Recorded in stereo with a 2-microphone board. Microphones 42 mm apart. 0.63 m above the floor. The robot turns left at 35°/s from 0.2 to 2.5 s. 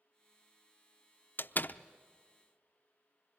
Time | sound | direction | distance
1.4 | a door slam | 50° left (ahead or behind) | 0.6 m